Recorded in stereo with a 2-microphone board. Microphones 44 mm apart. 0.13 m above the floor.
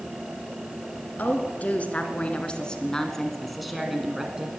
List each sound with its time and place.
1.2 s a woman speaking: 40° left (ahead or behind), 2 m; by 4.6 s 20° right (ahead or behind), 1.6 m